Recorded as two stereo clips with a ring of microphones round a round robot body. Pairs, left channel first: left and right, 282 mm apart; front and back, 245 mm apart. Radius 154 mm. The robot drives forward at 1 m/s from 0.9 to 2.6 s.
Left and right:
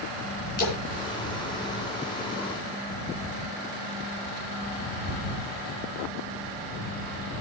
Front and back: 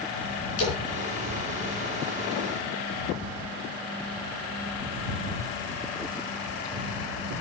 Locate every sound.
0.6 s a splash: 30° left, 8.5 m